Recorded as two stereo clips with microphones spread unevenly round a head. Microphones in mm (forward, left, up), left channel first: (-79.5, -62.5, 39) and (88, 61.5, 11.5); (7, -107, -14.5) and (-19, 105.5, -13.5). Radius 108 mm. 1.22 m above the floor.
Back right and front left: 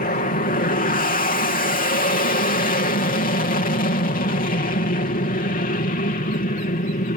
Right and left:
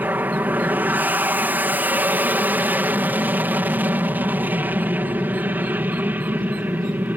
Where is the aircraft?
175° left.